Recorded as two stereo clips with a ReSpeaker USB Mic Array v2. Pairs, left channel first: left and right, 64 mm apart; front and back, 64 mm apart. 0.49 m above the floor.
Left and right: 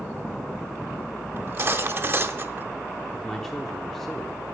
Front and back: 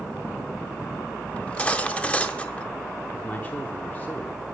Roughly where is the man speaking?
Ahead.